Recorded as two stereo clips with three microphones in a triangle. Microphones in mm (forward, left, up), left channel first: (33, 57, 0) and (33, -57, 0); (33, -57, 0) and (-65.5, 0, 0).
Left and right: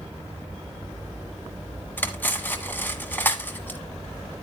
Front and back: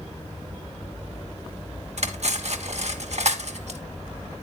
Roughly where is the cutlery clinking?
Behind.